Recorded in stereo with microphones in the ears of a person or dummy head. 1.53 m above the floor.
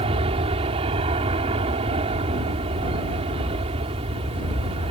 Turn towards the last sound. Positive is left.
turn(degrees=-30)  # may be behind; listen again after turning